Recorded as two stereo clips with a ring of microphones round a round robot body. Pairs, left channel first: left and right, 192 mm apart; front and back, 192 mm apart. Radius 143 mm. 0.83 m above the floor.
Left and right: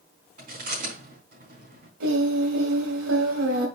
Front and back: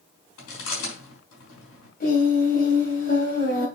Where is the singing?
60° right, 2.5 m.